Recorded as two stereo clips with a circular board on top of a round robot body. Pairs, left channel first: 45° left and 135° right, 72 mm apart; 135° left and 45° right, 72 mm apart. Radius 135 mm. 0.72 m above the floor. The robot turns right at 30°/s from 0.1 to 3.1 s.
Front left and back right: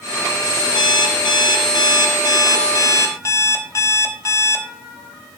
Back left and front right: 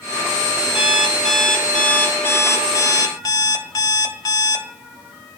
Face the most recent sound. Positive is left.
turn(degrees=100)